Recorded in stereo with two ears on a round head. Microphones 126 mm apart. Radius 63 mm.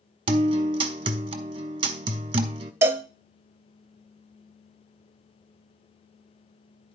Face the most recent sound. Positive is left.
turn(degrees=-20)  # may be behind; listen again after turning